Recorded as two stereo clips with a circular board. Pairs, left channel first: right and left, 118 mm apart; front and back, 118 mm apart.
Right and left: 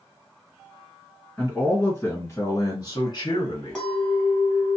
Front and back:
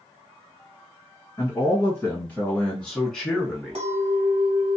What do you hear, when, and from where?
1.4 s a man speaking: 20° right, 1.6 m; by 3.8 s 95° right, 2 m
3.8 s a clink: 170° right, 1.4 m